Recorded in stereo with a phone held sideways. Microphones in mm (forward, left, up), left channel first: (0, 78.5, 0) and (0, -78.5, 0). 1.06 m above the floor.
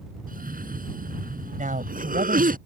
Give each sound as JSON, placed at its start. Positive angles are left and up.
{"t": 0.3, "sound": "a cough", "side_deg": -65}
{"t": 1.6, "sound": "a man speaking", "side_deg": -60}